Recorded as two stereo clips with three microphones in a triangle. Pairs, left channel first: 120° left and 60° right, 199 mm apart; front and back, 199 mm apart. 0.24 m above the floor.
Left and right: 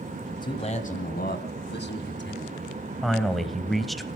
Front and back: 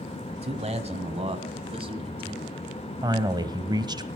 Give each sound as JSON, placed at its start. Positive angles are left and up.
{"t": 0.3, "sound": "a man speaking", "azimuth_deg": 175, "distance_m": 1.0}
{"t": 3.0, "sound": "a man speaking", "azimuth_deg": -150, "distance_m": 1.1}